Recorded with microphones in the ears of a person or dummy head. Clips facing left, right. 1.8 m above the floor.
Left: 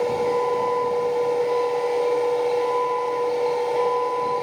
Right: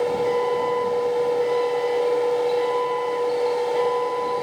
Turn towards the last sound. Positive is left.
turn(degrees=-5)  # may be behind; listen again after turning